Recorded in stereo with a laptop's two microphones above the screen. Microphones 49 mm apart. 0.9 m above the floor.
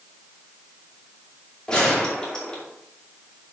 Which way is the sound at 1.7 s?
15° left (ahead or behind).